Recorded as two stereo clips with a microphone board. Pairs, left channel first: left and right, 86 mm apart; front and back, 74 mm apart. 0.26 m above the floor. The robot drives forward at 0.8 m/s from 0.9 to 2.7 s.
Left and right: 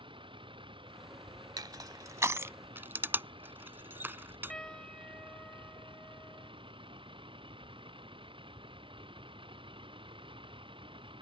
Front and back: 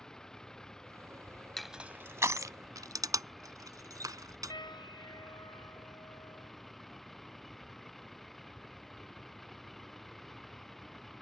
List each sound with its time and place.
0.0 s a vehicle: 80° right; by 11.2 s 85° right
1.6 s crushing: 85° right; by 4.5 s 155° right
4.5 s a piano: 10° left